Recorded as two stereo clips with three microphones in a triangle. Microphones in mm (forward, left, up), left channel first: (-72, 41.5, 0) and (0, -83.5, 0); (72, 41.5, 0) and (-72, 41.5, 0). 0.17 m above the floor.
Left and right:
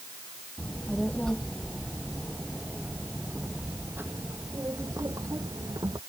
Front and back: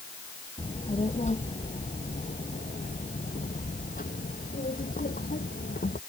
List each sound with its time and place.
0.6 s a child speaking: 40° left; by 6.0 s straight ahead